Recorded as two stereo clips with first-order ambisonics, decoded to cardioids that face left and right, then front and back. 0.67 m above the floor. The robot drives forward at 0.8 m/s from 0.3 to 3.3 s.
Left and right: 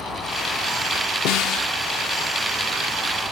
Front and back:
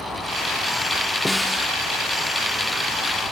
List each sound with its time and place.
1.2 s a snare drum: 85° left; by 1.7 s 95° left